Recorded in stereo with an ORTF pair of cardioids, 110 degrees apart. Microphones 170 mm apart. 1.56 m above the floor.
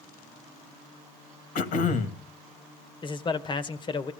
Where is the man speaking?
30° left, 1.7 m.